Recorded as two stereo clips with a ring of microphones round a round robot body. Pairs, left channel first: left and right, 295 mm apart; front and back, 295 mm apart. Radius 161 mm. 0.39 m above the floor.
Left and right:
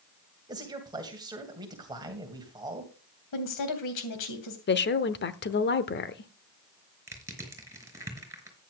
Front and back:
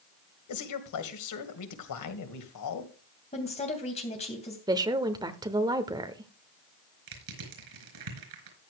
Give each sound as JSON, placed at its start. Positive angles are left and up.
{"t": 0.5, "sound": "a man speaking", "azimuth_deg": -15, "distance_m": 2.0}
{"t": 3.3, "sound": "a woman speaking", "azimuth_deg": 70, "distance_m": 2.5}
{"t": 4.7, "sound": "a woman speaking", "azimuth_deg": 110, "distance_m": 0.9}
{"t": 7.1, "sound": "crushing", "azimuth_deg": -170, "distance_m": 4.5}